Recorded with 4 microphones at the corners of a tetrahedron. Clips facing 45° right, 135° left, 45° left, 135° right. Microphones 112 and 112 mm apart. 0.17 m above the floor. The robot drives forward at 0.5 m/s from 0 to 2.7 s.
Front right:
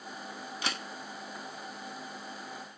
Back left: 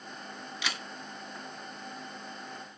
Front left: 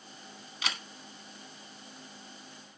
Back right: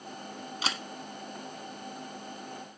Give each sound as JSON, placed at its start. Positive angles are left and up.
{"t": 0.6, "sound": "a camera shutter", "azimuth_deg": -85, "distance_m": 0.5}